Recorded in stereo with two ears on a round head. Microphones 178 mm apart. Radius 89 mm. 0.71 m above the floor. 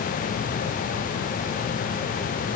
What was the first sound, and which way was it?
Only background noise.